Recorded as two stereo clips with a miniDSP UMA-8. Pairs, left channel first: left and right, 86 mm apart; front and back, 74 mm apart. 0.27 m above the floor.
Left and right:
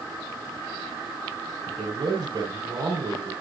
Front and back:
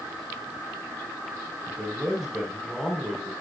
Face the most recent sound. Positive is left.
turn(degrees=-95)